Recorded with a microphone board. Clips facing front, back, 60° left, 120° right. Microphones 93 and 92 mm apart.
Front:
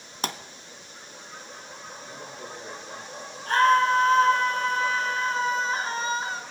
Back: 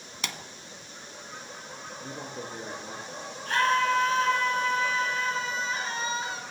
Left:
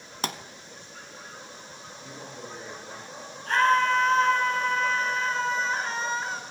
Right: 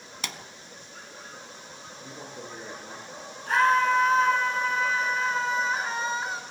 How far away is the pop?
About 0.8 m.